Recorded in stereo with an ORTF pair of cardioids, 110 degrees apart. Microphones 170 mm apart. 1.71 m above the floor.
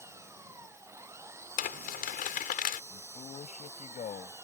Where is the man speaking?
40° left.